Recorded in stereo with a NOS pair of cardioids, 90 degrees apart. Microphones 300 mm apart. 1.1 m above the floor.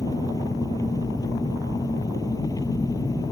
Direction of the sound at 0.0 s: 10° left.